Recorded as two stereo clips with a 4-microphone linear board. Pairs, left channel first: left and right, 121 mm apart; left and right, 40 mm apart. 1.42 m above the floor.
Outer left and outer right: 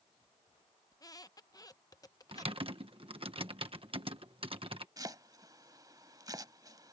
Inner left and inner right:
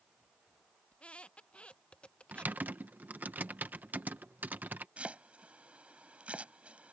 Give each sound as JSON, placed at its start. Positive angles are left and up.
{"t": 0.9, "sound": "a squeak", "side_deg": 30}
{"t": 2.3, "sound": "typing on a keyboard", "side_deg": -50}
{"t": 5.0, "sound": "chopping", "side_deg": -35}